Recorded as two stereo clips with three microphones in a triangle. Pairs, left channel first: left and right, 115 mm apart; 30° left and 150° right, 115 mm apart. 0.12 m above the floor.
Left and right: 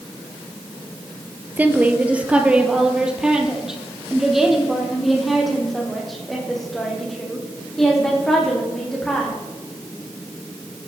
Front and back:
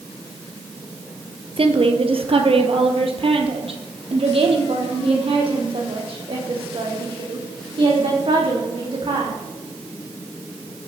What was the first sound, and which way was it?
A woman speaking, 165° right.